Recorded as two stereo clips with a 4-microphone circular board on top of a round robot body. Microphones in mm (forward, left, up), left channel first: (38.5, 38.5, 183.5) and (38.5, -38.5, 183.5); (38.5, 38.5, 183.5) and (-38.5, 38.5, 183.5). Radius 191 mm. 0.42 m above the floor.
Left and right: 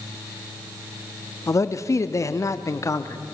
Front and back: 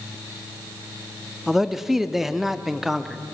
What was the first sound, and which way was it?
A man speaking, 95° left.